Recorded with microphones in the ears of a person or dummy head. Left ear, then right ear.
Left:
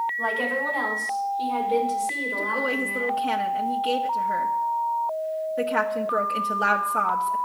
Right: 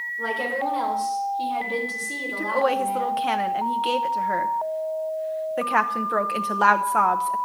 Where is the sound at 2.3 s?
35° right (ahead or behind), 0.7 m.